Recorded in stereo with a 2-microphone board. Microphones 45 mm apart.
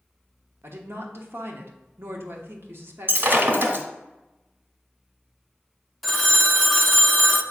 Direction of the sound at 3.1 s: 50° right (ahead or behind).